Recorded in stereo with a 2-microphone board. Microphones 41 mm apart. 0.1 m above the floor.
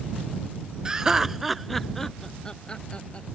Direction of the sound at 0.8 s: 20° right (ahead or behind).